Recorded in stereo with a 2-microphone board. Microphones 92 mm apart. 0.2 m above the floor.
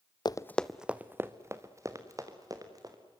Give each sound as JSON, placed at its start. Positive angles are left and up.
{"t": 0.2, "sound": "running footsteps", "side_deg": 50, "distance_m": 0.6}